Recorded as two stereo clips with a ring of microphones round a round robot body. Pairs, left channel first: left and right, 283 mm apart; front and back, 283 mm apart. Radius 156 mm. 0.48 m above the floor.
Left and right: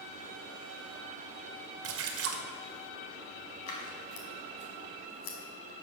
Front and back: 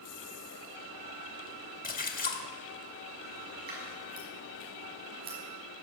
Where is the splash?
55° right, 1.9 m.